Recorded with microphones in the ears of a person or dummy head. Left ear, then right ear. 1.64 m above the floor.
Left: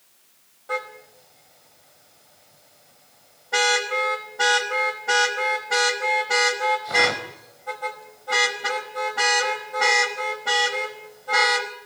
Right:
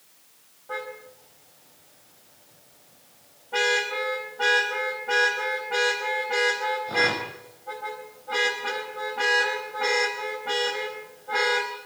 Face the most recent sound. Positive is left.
turn(degrees=75)  # may be behind; listen again after turning